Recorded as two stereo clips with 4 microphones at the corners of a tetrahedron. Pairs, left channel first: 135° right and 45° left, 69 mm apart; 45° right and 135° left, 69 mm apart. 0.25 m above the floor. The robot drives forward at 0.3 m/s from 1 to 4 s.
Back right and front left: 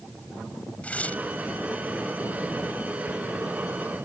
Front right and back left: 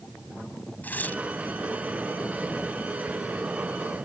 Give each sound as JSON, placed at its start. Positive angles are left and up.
{"t": 0.8, "sound": "tearing paper", "azimuth_deg": -85}